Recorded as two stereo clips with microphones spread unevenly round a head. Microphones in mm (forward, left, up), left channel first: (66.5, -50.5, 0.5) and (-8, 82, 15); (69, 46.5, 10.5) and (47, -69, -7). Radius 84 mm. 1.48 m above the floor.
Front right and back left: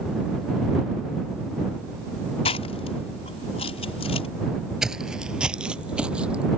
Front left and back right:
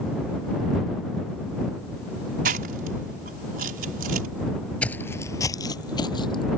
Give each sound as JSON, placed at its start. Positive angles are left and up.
{"t": 2.5, "sound": "chewing", "azimuth_deg": -120}
{"t": 4.8, "sound": "footsteps", "azimuth_deg": 55}